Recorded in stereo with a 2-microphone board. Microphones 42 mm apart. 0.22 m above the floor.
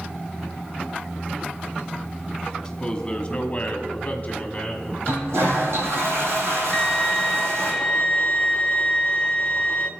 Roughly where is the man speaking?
Centre.